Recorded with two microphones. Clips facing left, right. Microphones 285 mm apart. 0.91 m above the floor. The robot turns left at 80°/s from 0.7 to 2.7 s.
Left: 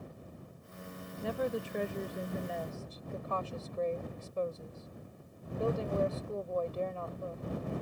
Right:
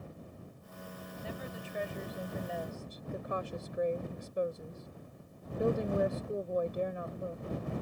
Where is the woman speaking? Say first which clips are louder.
Left 11 dB; 105° left; by 7.5 s 15° right.